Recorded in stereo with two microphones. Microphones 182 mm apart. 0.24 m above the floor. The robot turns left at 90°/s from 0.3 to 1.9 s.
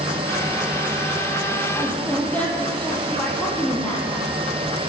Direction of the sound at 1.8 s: 20° left (ahead or behind).